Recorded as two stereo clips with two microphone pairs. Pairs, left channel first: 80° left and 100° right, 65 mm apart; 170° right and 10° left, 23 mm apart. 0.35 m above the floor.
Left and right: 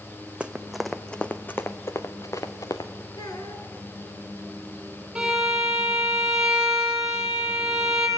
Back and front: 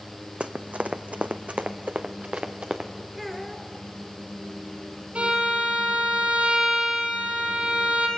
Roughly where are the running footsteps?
Ahead.